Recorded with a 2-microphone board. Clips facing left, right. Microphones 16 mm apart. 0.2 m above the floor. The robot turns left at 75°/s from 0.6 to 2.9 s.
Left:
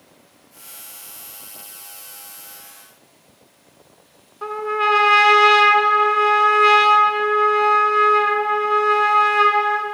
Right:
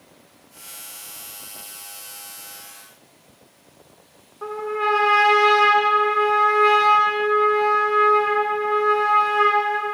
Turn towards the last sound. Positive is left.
turn(degrees=55)  # may be behind; listen again after turning